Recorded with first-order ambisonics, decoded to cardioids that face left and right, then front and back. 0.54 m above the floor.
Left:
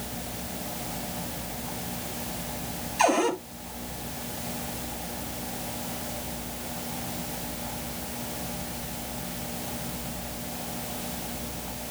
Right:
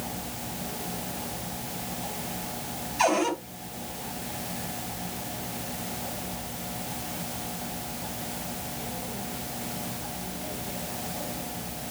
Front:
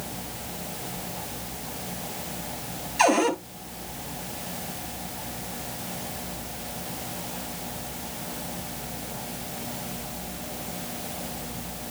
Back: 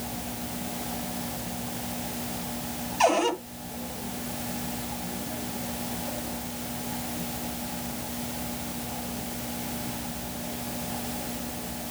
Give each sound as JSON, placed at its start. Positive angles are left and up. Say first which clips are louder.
{"t": 3.0, "sound": "a cupboard door", "louder": "left 1 dB, front 2 dB", "azimuth_deg": 10, "distance_m": 8.5}